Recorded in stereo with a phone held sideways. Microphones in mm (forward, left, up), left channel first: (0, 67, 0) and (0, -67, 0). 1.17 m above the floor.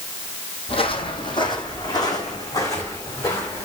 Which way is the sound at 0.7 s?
45° left (ahead or behind).